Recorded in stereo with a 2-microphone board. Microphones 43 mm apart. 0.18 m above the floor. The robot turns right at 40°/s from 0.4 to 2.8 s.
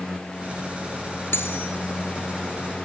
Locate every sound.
1.3 s cutlery clinking: 70° left (ahead or behind), 1.6 m; by 1.7 s 65° left (ahead or behind), 1.6 m